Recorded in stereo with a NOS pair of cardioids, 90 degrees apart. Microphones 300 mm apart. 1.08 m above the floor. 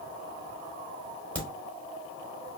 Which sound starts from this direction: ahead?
A crack, at 1.4 s.